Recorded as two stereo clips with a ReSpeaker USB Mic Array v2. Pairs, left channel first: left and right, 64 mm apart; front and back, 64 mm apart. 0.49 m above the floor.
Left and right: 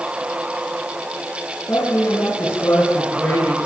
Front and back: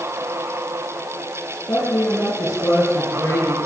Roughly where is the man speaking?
Ahead left.